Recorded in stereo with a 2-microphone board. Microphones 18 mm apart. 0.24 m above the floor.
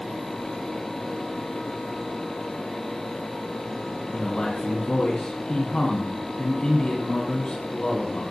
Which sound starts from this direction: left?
A man speaking, at 4.1 s.